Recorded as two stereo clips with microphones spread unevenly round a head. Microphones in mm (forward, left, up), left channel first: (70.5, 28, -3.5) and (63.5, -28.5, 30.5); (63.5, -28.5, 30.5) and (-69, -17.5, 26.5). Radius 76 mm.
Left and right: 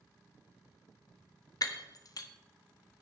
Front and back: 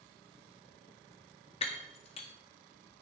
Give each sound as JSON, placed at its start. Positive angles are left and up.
{"t": 1.6, "sound": "breaking glass", "azimuth_deg": 45, "distance_m": 1.1}